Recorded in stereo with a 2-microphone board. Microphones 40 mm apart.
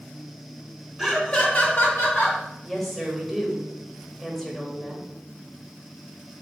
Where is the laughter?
Centre (ahead or behind), 0.9 m; by 2.4 s 50° left (ahead or behind), 2 m.